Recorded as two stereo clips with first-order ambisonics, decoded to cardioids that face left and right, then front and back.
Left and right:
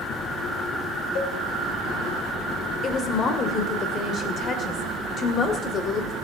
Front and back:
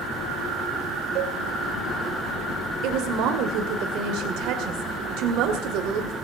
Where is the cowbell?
130° left, 3.5 m.